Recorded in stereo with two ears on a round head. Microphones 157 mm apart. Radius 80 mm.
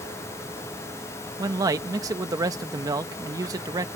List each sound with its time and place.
1.4 s a man speaking: 20° right (ahead or behind)